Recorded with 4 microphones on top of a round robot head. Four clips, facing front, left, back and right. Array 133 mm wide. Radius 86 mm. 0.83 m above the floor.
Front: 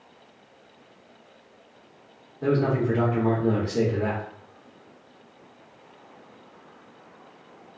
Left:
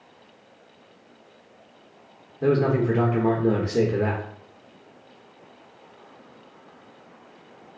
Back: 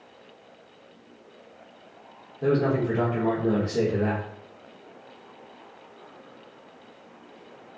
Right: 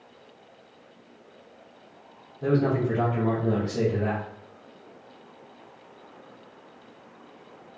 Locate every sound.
2.4 s a man speaking: 95° left, 0.9 m